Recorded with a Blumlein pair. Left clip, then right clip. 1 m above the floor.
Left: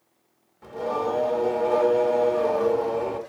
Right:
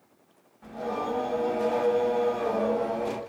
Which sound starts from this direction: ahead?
Singing, at 0.6 s.